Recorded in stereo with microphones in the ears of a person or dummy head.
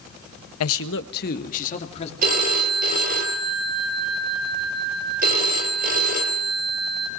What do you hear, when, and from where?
0.6 s a man speaking: 85° left, 1.2 m; by 2.1 s 30° left (ahead or behind), 3 m
2.2 s a phone ringing: 50° right (ahead or behind), 3 m